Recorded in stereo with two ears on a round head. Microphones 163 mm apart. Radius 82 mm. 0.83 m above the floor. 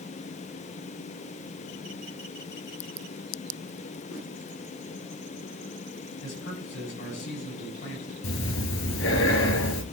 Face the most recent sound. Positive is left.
turn(degrees=85)